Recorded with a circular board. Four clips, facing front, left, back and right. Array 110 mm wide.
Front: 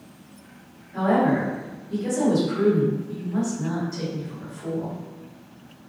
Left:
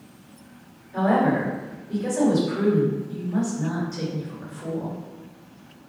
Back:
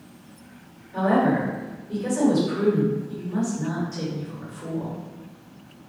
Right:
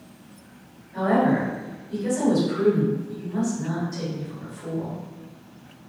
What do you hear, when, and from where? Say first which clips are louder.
0.9 s a woman speaking: even, even; 125° left, 1.6 m